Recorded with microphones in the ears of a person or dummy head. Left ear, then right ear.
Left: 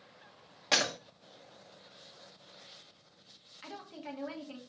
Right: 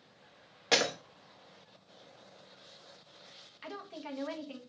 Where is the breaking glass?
10° right (ahead or behind), 1.5 m.